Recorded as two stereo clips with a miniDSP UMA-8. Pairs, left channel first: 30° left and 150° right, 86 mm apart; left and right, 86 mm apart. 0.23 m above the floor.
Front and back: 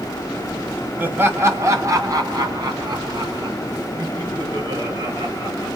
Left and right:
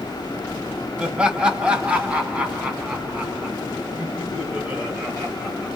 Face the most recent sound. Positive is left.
turn(degrees=-165)